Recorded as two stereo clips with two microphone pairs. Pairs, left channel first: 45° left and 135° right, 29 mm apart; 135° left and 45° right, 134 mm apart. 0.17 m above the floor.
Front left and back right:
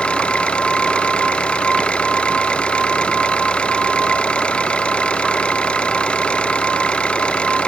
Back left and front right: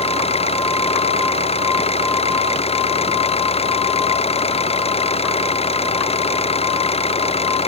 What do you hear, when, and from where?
0.0 s an engine running: 95° left